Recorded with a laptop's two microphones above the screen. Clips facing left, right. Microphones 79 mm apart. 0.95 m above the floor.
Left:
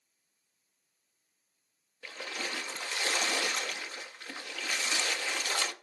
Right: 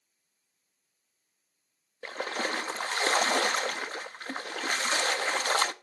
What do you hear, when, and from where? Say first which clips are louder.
2.0 s a splash: right 7 dB; 45° right (ahead or behind), 0.6 m